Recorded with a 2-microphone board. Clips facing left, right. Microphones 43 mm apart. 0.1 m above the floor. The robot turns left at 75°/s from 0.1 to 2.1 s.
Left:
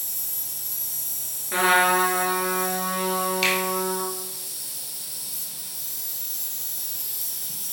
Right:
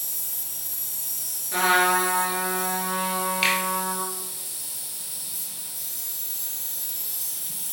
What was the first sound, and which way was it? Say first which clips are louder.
An insect: even; 130° left.